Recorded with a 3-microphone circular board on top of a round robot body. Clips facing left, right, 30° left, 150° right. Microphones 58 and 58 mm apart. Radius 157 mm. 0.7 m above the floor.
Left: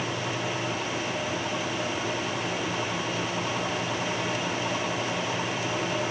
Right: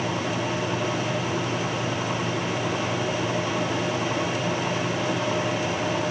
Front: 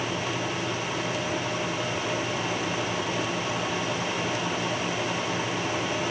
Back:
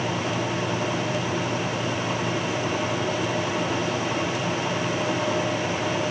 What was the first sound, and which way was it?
Only background noise.